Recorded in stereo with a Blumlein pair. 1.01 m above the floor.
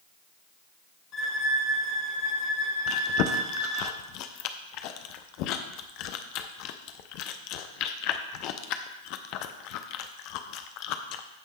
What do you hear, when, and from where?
1.1 s a violin: 35° left, 2.5 m
2.9 s chewing: 40° left, 0.7 m